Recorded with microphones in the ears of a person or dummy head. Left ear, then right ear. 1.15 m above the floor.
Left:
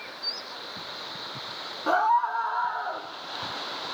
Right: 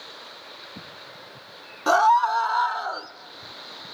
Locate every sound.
1.9 s a scream: 85° right, 0.9 m; by 3.1 s 70° right (ahead or behind), 1.5 m